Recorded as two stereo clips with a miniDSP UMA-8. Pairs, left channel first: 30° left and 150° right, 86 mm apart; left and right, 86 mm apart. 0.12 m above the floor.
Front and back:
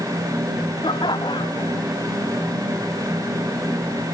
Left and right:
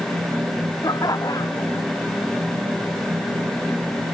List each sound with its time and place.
0.8 s laughter: 50° left